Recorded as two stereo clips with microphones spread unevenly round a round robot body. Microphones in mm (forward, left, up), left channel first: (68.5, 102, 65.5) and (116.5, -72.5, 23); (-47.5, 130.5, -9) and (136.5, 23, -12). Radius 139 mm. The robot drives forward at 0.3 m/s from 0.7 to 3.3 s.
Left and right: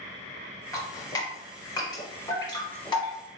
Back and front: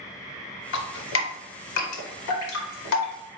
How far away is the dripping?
About 0.5 m.